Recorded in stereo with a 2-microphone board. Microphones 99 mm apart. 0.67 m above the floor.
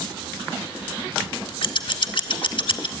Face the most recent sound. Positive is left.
turn(degrees=55)  # may be behind; listen again after turning